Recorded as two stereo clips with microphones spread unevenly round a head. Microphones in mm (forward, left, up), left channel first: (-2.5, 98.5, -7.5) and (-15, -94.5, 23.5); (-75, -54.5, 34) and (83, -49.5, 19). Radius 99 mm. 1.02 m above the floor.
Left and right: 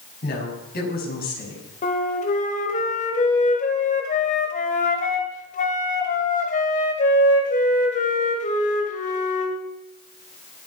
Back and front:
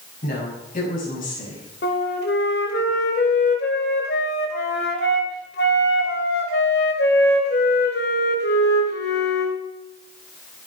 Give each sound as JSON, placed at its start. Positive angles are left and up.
{"t": 0.2, "sound": "a woman speaking", "azimuth_deg": 130, "distance_m": 6.5}
{"t": 1.8, "sound": "a flute", "azimuth_deg": 140, "distance_m": 2.5}